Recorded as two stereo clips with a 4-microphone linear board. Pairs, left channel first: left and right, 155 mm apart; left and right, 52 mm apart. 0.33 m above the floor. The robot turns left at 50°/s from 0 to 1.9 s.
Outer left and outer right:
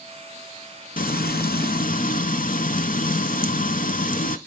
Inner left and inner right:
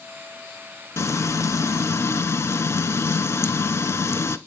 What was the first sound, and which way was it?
Frying, 110° left.